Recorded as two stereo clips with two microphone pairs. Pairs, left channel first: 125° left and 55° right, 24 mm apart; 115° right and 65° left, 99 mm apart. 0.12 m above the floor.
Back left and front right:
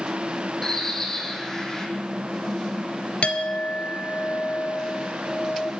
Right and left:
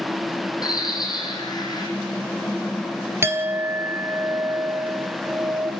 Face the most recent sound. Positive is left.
turn(degrees=120)